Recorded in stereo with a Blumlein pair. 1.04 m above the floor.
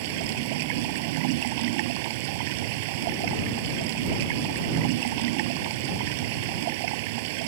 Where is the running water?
50° right.